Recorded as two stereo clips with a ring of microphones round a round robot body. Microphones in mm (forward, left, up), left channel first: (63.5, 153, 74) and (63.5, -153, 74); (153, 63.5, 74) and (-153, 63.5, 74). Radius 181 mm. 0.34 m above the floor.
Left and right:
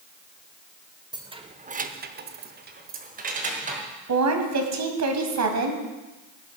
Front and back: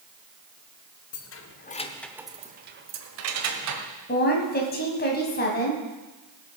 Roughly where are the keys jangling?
Ahead.